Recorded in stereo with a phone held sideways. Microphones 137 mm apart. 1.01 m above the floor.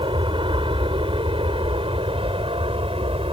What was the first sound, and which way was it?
An aircraft, 40° right (ahead or behind).